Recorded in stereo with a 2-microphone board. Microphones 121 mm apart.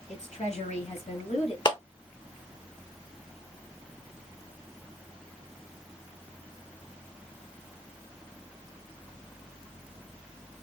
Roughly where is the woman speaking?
Left.